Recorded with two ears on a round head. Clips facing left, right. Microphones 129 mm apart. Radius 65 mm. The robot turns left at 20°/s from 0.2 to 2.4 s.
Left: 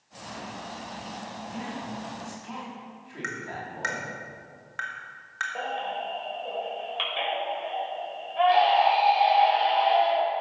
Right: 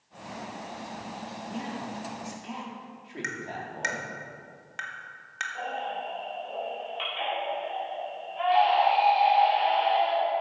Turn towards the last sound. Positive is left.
turn(degrees=70)  # may be behind; listen again after turning